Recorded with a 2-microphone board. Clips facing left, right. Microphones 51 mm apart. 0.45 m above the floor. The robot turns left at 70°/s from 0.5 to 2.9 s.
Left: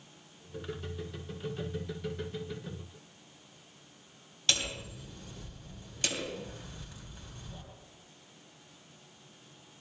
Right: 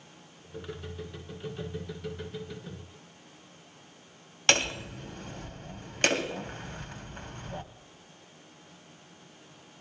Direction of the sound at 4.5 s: 55° right (ahead or behind).